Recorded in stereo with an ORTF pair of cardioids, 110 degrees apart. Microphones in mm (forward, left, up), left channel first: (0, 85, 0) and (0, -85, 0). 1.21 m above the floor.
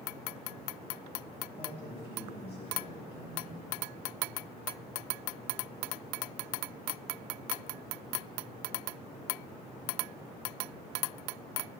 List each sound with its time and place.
1.6 s a man speaking: 40° left, 7 m